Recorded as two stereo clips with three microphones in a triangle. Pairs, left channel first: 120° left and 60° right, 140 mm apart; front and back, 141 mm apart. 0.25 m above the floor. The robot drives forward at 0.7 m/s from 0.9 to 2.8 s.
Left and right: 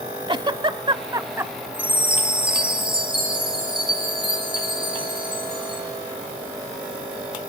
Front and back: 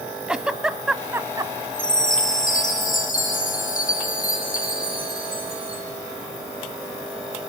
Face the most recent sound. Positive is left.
turn(degrees=-10)